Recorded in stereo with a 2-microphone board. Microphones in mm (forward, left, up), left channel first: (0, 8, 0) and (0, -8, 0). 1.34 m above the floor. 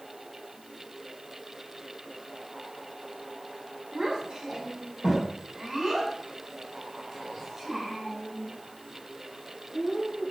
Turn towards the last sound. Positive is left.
turn(degrees=-15)  # may be behind; listen again after turning